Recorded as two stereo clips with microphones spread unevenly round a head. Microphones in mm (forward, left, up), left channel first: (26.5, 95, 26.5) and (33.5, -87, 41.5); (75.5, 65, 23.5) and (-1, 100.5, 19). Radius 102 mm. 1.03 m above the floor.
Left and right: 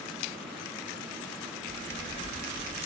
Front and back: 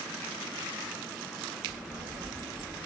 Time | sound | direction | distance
1.7 | a child speaking | 150° left | 3.5 m